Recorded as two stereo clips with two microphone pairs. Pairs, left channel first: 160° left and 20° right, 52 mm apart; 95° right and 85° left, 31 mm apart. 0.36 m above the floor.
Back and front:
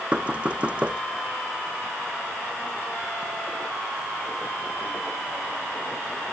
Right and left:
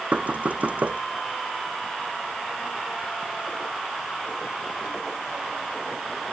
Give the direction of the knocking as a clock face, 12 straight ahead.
10 o'clock.